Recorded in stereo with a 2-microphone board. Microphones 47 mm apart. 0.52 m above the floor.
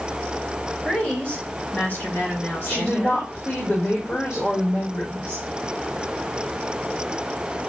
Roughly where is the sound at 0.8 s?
Left.